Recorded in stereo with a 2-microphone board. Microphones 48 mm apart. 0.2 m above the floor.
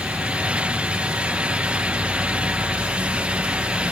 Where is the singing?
No singing in this recording.